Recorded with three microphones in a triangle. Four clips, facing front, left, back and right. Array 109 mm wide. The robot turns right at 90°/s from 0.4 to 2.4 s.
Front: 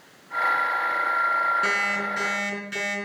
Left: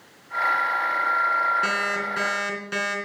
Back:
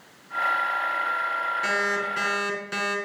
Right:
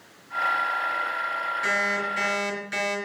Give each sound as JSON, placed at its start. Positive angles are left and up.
{"t": 1.6, "sound": "an alarm clock", "azimuth_deg": 55, "distance_m": 3.0}